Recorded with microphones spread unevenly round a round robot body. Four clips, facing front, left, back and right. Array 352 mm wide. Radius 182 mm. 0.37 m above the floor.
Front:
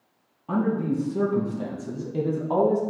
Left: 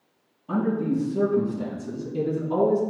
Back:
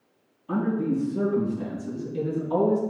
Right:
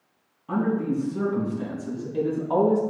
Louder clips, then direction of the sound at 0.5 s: Even, front 1 dB; 10° right.